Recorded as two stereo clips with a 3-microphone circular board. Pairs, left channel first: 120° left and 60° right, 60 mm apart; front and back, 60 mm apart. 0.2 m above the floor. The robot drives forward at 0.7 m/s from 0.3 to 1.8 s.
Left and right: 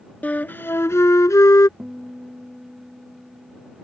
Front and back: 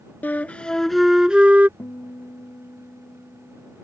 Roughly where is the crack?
No crack in this recording.